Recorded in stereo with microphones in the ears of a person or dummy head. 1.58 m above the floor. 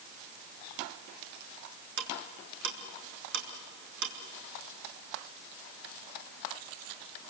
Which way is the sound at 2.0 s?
65° right (ahead or behind).